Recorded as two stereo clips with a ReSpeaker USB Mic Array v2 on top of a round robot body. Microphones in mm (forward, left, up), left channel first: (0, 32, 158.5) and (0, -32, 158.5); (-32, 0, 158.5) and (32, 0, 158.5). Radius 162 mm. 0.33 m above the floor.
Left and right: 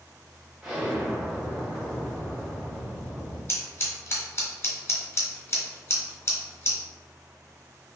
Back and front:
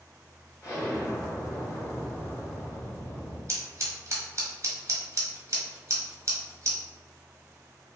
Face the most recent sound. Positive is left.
turn(degrees=40)